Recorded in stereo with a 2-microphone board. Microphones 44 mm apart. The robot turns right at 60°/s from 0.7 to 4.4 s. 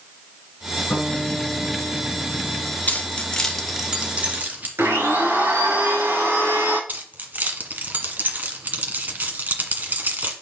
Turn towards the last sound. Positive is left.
turn(degrees=-45)  # may be behind; listen again after turning